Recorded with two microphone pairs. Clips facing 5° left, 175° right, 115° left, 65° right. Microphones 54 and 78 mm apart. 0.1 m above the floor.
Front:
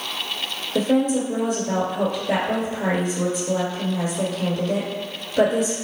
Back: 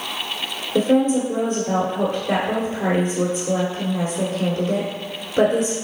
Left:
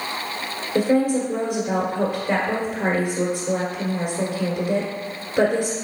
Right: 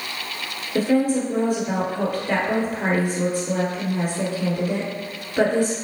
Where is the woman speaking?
165° right, 1.7 m.